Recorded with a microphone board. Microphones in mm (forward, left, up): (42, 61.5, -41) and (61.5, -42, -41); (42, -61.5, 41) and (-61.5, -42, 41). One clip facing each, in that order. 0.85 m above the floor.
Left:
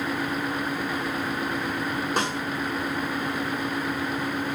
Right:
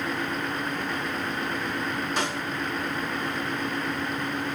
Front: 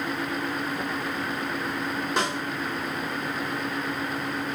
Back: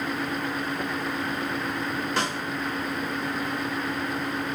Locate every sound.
2.2 s a snare drum: 60° left, 1.8 m